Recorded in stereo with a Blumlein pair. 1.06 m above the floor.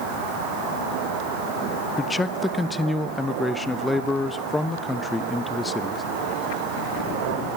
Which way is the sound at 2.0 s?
10° left.